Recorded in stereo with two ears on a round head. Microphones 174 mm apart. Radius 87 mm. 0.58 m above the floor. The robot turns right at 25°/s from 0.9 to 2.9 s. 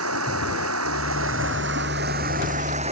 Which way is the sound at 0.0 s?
85° right.